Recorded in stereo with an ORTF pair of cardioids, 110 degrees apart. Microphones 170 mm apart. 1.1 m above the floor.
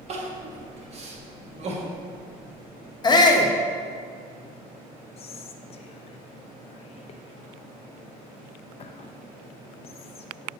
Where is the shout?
25° left, 0.9 m.